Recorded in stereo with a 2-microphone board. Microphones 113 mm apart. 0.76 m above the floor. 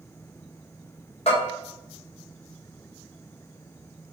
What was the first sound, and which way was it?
A bell, 60° left (ahead or behind).